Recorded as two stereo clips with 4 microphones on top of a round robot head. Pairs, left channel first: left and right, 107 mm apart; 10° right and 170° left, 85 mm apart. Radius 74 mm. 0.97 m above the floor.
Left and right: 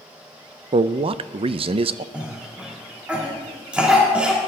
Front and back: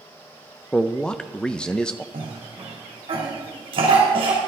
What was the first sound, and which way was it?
A man speaking, 90° right.